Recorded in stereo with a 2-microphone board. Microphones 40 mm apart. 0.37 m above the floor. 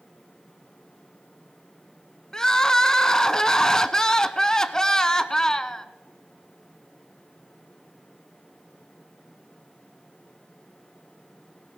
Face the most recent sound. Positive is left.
turn(degrees=15)  # may be behind; listen again after turning